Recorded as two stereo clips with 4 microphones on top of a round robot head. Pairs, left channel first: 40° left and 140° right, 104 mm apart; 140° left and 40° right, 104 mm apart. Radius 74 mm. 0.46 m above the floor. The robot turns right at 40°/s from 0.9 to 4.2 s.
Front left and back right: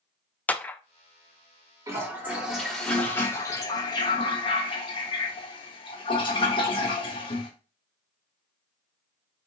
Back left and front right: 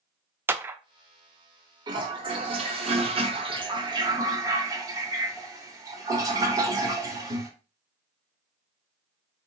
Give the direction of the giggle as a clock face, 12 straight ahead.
I don't hear a giggle.